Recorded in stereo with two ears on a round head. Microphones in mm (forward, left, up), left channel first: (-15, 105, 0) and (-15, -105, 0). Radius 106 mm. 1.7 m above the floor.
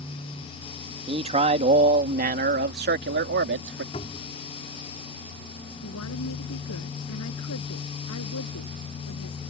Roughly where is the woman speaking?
Left.